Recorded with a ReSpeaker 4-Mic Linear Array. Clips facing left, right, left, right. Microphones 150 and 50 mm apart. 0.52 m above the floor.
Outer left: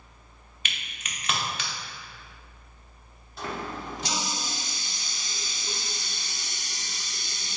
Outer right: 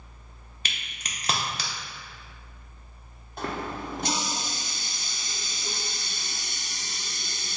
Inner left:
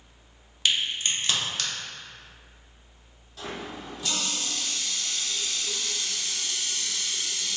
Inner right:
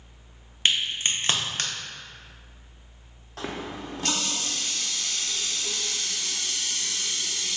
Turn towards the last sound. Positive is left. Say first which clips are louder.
# outer right 2 dB, inner right 3 dB
turn(degrees=-55)  # may be behind; listen again after turning